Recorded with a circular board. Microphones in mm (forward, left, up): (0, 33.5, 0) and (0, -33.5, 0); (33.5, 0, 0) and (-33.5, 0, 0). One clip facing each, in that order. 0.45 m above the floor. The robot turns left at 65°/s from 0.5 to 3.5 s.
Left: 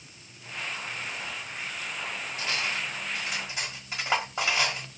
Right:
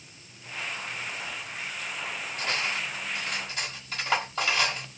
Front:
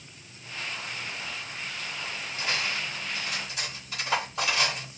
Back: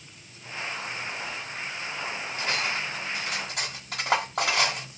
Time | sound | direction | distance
2.4 | cutlery clinking | 130° right | 1.3 m